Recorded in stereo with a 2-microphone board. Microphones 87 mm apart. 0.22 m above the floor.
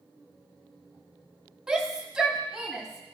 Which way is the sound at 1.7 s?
10° right (ahead or behind).